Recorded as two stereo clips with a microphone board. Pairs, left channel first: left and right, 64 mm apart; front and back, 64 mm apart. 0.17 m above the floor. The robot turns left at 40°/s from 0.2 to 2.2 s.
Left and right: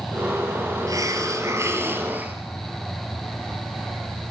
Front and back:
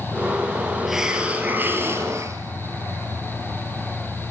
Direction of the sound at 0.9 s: 95° right.